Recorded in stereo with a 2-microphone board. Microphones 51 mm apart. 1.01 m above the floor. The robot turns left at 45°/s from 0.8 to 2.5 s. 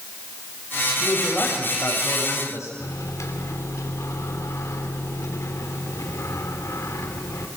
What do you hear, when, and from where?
1.0 s a man speaking: 160° left, 7 m; by 2.7 s 95° left, 7 m
2.8 s a microwave: 85° left, 2.5 m